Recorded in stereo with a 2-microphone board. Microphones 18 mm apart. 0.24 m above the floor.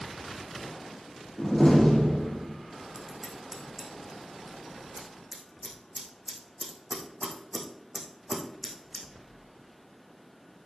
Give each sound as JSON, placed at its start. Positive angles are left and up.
{"t": 1.4, "sound": "a door slam", "side_deg": 30, "distance_m": 5.0}
{"t": 2.9, "sound": "scissors", "side_deg": 0, "distance_m": 3.5}